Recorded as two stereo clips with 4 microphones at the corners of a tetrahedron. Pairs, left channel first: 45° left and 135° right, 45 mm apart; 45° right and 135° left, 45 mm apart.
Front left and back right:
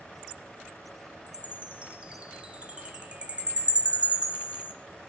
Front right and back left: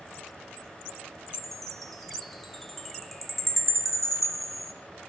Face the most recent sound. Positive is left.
turn(degrees=-130)